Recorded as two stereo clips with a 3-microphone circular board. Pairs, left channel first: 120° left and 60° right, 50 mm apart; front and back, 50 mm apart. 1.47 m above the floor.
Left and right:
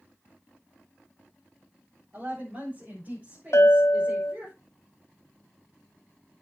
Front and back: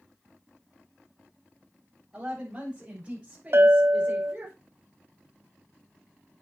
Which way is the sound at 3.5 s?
145° left.